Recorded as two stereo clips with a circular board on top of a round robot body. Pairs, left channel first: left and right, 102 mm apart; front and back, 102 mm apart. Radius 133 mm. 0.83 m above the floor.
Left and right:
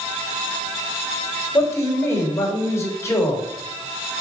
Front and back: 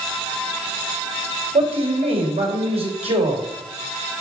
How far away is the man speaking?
About 4 m.